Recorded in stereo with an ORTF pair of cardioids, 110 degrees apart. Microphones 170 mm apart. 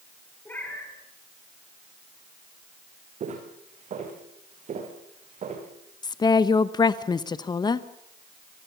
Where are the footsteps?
45° right, 4 m.